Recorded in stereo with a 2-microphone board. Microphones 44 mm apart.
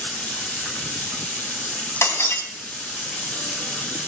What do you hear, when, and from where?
0.0 s running water: 30° left (ahead or behind), 3.5 m
2.0 s breaking glass: 80° left, 3.5 m